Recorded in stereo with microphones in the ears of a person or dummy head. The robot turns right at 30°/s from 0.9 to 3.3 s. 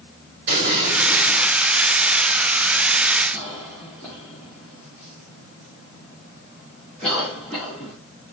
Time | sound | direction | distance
0.5 | an explosion | 75° right (ahead or behind) | 3 m
3.3 | a cough | 5° left (ahead or behind) | 1.9 m